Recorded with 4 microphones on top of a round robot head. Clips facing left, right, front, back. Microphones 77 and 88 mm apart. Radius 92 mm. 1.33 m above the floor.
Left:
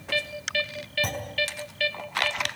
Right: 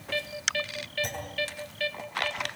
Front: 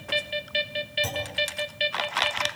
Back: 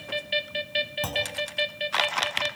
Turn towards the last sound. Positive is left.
turn(degrees=145)